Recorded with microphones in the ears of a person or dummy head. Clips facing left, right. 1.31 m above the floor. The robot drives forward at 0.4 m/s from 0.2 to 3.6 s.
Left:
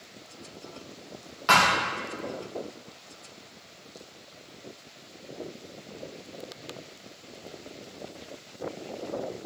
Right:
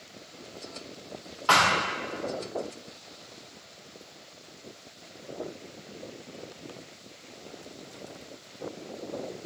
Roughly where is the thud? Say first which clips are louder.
Left 1 dB; left.